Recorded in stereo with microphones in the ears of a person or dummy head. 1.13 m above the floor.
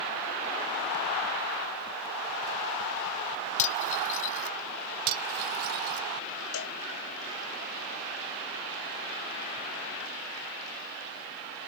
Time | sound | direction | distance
3.6 | cutlery clinking | 45° left (ahead or behind) | ?
5.1 | cutlery clinking | 60° right (ahead or behind) | ?
6.5 | a cowbell | 80° left | ?